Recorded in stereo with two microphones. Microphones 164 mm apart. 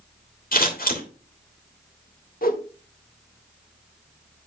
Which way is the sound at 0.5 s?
60° left (ahead or behind).